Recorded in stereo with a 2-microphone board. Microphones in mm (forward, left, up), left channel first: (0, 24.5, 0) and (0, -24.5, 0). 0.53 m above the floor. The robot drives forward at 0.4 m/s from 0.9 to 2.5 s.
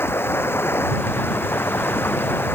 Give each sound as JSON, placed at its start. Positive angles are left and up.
{"t": 0.0, "sound": "running water", "side_deg": 60}